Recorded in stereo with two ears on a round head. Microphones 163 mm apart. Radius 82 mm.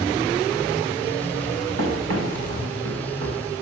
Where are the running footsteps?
80° right, 7.5 m.